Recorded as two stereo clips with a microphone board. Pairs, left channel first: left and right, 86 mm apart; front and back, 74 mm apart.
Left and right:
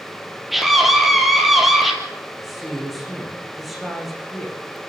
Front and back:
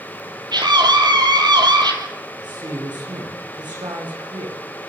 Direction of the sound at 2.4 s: Straight behind.